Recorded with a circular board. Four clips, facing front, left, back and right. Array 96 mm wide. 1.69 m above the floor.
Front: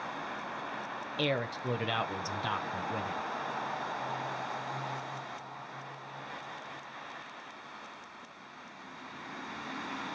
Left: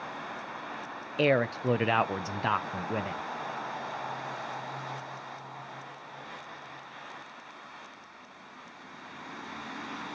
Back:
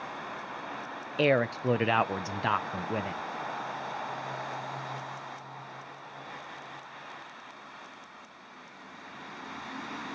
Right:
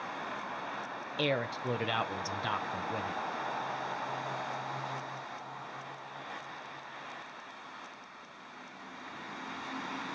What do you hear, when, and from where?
1.2 s a man speaking: 135° left, 0.5 m